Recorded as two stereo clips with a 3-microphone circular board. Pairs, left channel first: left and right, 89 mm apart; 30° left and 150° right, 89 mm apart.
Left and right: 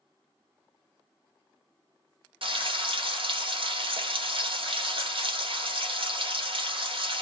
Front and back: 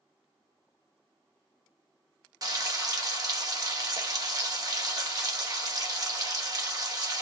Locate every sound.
2.4 s frying: 100° right, 1.0 m